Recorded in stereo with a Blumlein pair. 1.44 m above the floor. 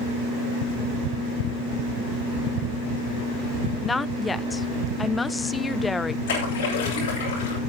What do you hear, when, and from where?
3.8 s a woman speaking: 10° left, 0.6 m
6.3 s a splash: 60° left, 7 m